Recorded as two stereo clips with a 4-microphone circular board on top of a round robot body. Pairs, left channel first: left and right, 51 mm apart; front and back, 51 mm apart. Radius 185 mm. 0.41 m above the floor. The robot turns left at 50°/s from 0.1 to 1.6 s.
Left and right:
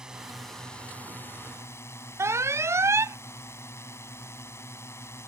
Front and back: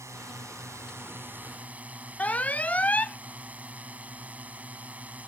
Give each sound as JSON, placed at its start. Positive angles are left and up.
{"t": 0.0, "sound": "a drone", "azimuth_deg": -165}
{"t": 2.2, "sound": "an alarm", "azimuth_deg": -65}